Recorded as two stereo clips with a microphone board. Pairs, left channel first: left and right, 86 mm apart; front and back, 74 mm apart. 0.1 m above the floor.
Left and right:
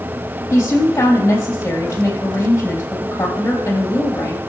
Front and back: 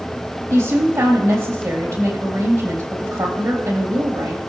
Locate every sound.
0.5 s a woman speaking: 145° left, 3.5 m